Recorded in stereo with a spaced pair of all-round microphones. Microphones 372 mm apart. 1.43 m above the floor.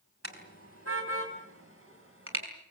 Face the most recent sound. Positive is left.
turn(degrees=-35)  # may be behind; listen again after turning